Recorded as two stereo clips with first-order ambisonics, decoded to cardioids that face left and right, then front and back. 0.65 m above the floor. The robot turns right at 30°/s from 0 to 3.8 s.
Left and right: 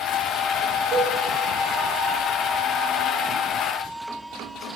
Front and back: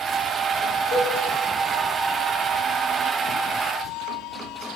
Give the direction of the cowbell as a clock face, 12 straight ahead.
1 o'clock.